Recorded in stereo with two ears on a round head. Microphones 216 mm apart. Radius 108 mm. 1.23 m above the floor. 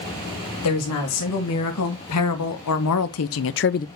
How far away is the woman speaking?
About 2.5 m.